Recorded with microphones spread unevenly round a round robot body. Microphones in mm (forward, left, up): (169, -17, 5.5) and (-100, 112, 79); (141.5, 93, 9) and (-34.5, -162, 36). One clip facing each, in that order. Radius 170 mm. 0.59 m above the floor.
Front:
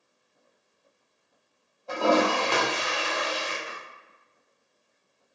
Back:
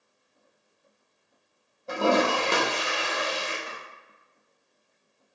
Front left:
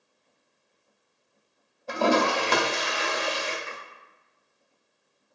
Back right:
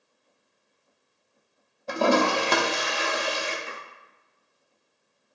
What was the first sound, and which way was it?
A toilet flushing, 130° right.